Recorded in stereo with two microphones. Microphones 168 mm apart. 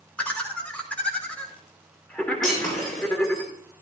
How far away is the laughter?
About 3 m.